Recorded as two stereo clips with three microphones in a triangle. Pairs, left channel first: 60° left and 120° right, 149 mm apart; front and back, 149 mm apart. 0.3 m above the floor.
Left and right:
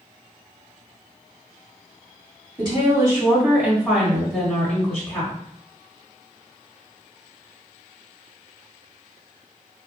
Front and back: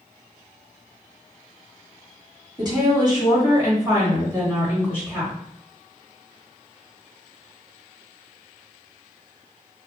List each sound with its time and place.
2.6 s a woman speaking: 145° right, 1.7 m; by 5.3 s 110° left, 1.6 m